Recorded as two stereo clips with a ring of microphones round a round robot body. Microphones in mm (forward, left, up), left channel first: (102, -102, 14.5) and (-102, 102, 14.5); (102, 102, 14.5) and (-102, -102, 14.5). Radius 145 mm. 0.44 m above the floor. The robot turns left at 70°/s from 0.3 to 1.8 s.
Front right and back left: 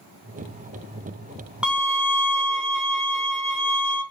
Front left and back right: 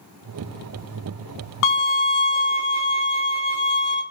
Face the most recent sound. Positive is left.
turn(degrees=35)